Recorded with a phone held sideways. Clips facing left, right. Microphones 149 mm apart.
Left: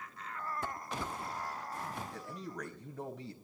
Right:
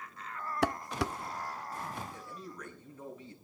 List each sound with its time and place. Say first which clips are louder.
0.6 s dishes clattering: right 8 dB; 80° right, 0.5 m
2.1 s a man speaking: left 2 dB; 85° left, 5 m